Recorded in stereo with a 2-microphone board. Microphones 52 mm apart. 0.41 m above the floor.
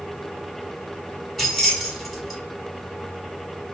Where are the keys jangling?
5° left (ahead or behind), 1.5 m.